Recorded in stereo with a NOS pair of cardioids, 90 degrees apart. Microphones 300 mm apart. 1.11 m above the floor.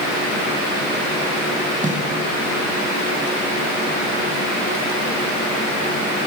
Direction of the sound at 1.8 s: 25° right.